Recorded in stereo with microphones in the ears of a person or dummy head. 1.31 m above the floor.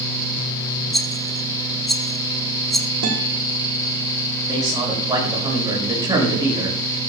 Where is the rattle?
Centre (ahead or behind), 0.6 m.